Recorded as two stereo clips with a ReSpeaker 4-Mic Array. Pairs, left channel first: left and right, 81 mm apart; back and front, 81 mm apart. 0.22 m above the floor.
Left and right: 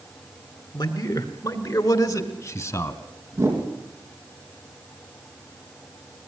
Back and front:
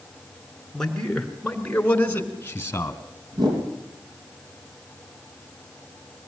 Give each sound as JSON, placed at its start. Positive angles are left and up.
{"t": 0.7, "sound": "a man speaking", "azimuth_deg": 95, "distance_m": 2.5}
{"t": 3.3, "sound": "a whoosh", "azimuth_deg": -30, "distance_m": 4.0}